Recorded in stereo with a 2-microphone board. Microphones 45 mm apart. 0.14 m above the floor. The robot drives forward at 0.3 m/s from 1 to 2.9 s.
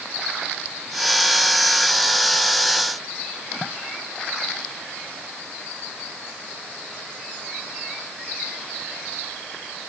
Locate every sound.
Only background noise.